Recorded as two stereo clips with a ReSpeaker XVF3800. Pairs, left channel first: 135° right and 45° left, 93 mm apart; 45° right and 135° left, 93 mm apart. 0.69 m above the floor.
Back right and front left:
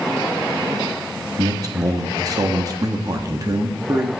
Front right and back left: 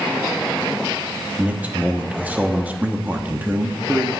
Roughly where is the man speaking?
Left.